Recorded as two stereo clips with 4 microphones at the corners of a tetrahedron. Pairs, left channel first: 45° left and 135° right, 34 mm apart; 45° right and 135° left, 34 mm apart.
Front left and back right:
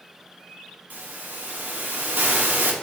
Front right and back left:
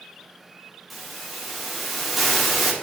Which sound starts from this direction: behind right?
A hiss, at 0.9 s.